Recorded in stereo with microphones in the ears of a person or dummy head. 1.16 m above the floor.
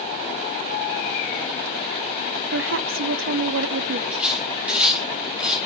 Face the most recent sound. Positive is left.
turn(degrees=-10)  # may be behind; listen again after turning